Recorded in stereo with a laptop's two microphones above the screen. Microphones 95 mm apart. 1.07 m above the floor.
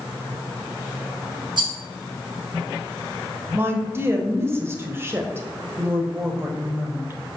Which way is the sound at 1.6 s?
50° right (ahead or behind).